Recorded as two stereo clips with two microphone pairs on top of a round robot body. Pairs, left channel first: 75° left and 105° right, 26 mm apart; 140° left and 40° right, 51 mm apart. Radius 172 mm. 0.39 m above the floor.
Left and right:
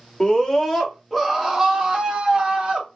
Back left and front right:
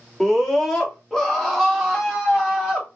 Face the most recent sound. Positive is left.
turn(degrees=-135)